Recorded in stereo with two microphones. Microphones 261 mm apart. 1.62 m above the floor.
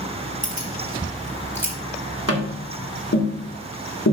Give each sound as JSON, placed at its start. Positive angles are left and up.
{"t": 0.4, "sound": "keys jangling", "side_deg": 30, "distance_m": 2.0}
{"t": 2.3, "sound": "tapping", "side_deg": 65, "distance_m": 1.8}